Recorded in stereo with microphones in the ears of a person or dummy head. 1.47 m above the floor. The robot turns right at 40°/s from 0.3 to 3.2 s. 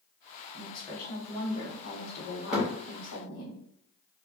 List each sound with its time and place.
0.5 s a woman speaking: 5° right, 1.0 m; by 3.5 s 100° left, 1.0 m
2.5 s a thud: 5° left (ahead or behind), 1.0 m; by 2.7 s centre (ahead or behind), 1.0 m